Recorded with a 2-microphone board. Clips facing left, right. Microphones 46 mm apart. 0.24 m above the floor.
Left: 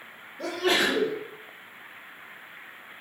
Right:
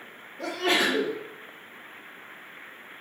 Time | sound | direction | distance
0.4 | a sneeze | 45° right (ahead or behind) | 1.6 m